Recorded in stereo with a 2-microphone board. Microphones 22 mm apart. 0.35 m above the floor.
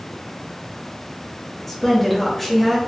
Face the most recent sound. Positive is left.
turn(degrees=10)  # may be behind; listen again after turning